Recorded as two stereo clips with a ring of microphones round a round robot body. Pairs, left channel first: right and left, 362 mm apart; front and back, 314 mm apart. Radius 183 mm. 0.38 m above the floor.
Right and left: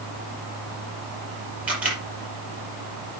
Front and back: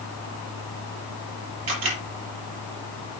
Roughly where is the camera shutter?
Behind.